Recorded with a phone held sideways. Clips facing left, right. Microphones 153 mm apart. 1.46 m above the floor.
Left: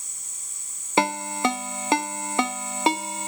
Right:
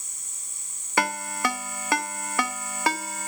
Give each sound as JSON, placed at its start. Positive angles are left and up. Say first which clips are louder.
{"t": 1.0, "sound": "a ringtone", "louder": "left 4 dB", "side_deg": 25, "distance_m": 0.8}